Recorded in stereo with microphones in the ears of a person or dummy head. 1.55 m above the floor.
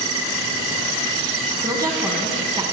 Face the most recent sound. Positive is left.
turn(degrees=-20)  # may be behind; listen again after turning